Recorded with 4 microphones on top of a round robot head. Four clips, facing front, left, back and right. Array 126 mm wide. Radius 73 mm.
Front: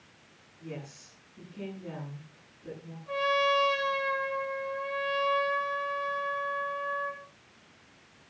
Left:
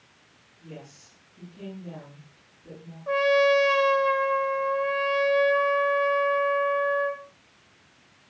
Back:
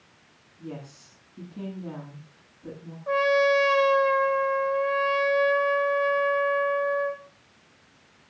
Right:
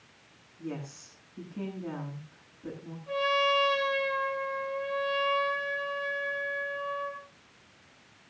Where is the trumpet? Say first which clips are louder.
Left 7 dB, back 6 dB; 140° left, 1.9 m.